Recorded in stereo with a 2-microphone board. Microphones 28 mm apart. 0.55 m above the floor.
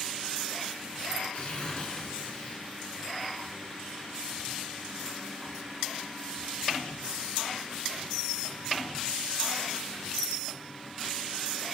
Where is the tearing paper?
40° left (ahead or behind), 7.5 m.